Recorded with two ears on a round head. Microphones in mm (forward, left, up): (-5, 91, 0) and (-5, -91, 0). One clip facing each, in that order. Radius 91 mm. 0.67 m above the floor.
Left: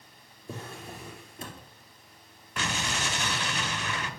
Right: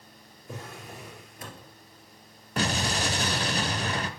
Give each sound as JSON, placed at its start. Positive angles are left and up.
{"t": 0.5, "sound": "a drawer", "side_deg": 25, "distance_m": 3.0}
{"t": 2.6, "sound": "an explosion", "side_deg": -30, "distance_m": 0.6}